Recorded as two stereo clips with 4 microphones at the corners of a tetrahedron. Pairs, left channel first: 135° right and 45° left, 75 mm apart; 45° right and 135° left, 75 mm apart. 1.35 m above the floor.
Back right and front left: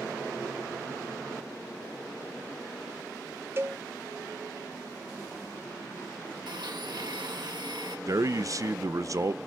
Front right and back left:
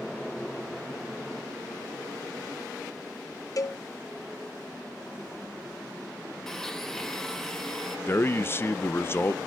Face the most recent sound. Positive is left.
turn(degrees=10)